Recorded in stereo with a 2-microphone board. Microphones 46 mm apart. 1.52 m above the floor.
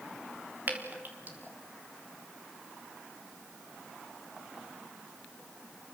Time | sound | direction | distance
0.7 | dripping | 40° right (ahead or behind) | 3.5 m